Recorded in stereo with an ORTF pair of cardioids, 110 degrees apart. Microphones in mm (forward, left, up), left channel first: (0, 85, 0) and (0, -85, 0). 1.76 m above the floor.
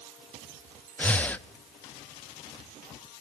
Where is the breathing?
10° left, 0.6 m.